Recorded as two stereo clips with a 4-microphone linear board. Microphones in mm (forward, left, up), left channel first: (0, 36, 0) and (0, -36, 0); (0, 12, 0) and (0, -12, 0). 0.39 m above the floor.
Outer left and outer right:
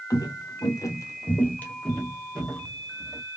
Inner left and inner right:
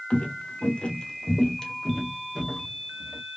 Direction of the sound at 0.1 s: 55° left (ahead or behind).